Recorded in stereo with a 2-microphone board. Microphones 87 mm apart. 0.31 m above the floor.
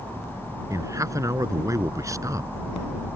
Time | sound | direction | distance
0.7 | a man speaking | 35° right (ahead or behind) | ?